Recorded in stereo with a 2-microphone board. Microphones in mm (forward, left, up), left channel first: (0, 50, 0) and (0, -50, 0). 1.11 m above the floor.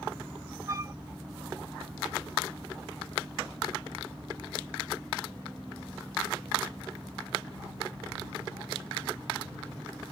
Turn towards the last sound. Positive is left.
turn(degrees=-30)  # may be behind; listen again after turning